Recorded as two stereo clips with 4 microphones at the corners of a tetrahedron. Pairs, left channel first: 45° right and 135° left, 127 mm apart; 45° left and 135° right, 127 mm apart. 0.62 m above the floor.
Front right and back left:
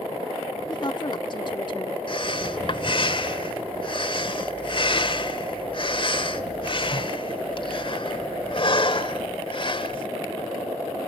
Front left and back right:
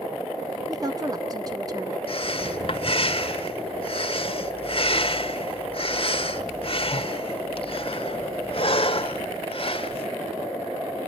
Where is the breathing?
Straight ahead, 1.3 m.